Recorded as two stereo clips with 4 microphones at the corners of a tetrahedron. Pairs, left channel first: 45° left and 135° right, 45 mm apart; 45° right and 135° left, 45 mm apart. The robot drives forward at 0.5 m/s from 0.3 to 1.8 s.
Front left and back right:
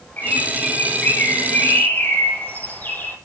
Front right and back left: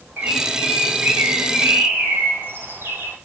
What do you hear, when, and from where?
0.2 s a bird: 90° left, 6.5 m; by 3.1 s 100° left, 7 m